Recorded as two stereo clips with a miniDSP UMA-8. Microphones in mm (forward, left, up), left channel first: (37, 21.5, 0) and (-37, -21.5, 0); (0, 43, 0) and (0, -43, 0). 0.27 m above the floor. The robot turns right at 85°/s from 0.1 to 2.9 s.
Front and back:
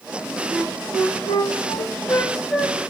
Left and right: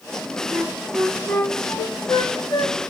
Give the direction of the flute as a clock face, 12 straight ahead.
2 o'clock.